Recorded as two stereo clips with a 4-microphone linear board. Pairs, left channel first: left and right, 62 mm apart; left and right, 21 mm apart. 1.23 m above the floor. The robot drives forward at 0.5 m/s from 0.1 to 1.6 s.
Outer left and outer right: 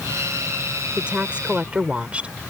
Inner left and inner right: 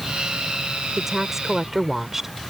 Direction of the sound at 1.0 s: 15° right (ahead or behind).